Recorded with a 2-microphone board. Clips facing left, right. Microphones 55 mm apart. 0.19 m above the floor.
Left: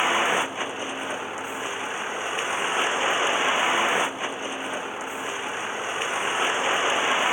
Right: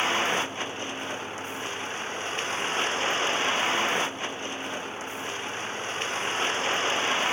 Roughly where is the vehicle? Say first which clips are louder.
Left 4 dB; centre.